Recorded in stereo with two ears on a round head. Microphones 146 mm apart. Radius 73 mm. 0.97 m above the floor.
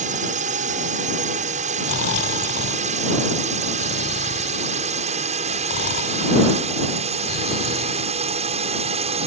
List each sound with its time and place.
0.0 s a drone: 50° right (ahead or behind); by 9.3 s 40° right (ahead or behind)
1.8 s snoring: 80° left